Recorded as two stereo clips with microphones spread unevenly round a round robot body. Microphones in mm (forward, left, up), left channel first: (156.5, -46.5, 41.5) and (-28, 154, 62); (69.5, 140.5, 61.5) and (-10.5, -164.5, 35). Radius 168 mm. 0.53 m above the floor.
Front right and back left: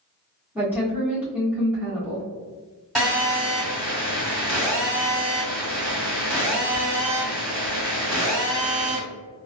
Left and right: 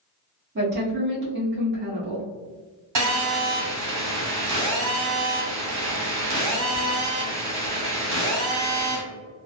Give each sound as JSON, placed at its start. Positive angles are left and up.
{"t": 0.6, "sound": "a woman speaking", "azimuth_deg": -140, "distance_m": 1.3}
{"t": 3.0, "sound": "a phone buzzing", "azimuth_deg": -135, "distance_m": 1.7}